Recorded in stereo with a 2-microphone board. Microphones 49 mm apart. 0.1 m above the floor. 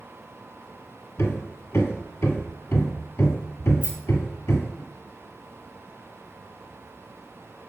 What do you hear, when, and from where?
1.2 s hammering: 55° left (ahead or behind), 1.7 m
3.8 s a rattle: 25° right (ahead or behind), 2.5 m